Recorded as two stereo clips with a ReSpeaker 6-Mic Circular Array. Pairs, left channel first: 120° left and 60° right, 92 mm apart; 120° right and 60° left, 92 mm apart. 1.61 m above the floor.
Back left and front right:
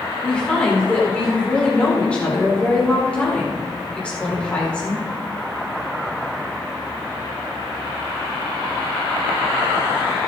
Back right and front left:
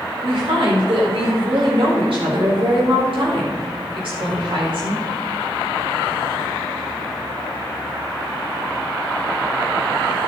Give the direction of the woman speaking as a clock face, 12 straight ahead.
11 o'clock.